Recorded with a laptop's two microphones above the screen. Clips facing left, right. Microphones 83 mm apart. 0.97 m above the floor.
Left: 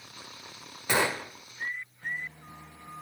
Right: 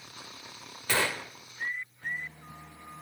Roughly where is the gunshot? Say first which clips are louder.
Left 3 dB; centre.